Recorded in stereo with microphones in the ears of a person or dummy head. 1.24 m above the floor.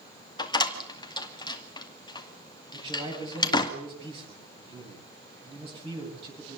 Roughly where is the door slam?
Left.